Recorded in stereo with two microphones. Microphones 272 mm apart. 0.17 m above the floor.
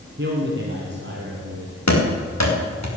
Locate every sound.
0.2 s a man speaking: 45° right (ahead or behind), 2 m
1.9 s running footsteps: 75° left (ahead or behind), 4 m